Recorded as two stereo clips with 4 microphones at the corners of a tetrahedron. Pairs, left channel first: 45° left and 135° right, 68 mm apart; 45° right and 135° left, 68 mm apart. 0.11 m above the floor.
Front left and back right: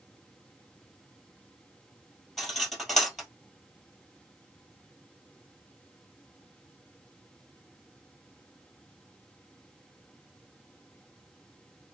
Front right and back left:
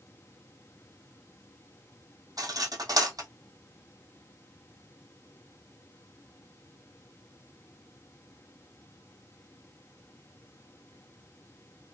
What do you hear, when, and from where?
2.4 s cutlery clinking: 135° left, 1.9 m